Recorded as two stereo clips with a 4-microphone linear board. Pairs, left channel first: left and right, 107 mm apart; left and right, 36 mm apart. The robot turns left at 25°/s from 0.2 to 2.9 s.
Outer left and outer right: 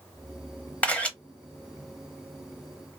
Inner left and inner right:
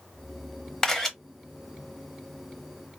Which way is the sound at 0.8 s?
15° left (ahead or behind).